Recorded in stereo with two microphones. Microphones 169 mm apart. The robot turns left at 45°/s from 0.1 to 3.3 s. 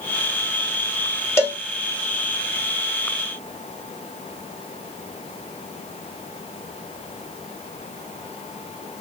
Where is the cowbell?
15° left (ahead or behind), 0.8 m; by 1.6 s 5° left (ahead or behind), 0.8 m.